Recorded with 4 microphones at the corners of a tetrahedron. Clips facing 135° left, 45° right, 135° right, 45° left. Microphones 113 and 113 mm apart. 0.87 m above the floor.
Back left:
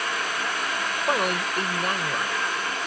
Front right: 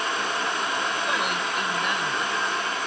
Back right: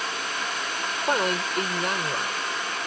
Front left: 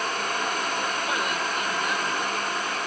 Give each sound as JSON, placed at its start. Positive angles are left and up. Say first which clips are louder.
{"t": 1.1, "sound": "a man speaking", "louder": "back left 2 dB, back right 3 dB", "azimuth_deg": 180}